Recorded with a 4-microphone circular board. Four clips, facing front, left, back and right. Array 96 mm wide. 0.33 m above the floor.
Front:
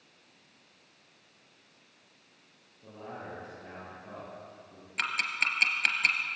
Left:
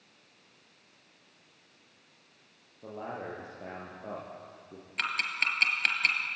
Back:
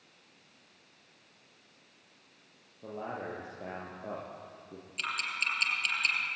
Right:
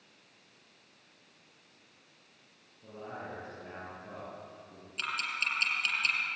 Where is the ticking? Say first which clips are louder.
Left 3 dB, front 4 dB; 35° left, 3.5 m.